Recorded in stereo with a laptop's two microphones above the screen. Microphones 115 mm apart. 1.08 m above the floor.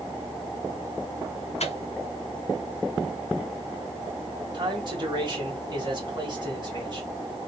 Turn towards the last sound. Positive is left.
turn(degrees=-40)  # may be behind; listen again after turning